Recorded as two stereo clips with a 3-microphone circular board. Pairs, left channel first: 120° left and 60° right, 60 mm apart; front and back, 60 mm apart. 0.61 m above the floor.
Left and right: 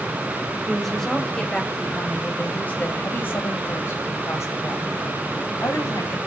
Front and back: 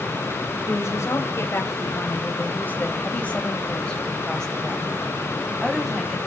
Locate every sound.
0.7 s a woman speaking: 30° left, 3 m; by 6.2 s 95° left, 4 m